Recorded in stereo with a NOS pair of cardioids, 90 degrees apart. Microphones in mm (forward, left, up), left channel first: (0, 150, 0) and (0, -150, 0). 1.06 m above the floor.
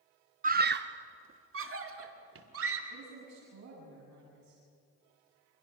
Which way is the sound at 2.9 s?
60° right.